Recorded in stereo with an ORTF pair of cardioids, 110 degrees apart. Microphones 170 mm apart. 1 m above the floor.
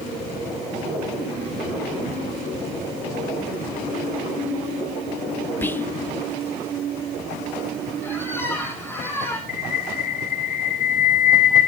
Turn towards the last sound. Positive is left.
turn(degrees=60)